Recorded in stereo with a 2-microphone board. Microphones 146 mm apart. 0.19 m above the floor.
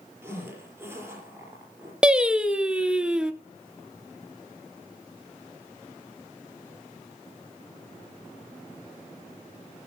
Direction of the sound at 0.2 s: 15° right (ahead or behind).